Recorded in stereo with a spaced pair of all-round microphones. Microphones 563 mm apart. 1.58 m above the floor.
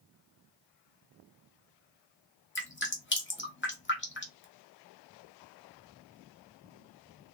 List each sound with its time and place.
2.5 s dripping: 20° left (ahead or behind), 1.0 m